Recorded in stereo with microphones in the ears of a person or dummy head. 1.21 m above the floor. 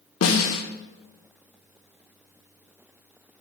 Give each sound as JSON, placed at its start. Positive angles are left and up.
{"t": 0.2, "sound": "a snare drum", "side_deg": 65, "distance_m": 1.0}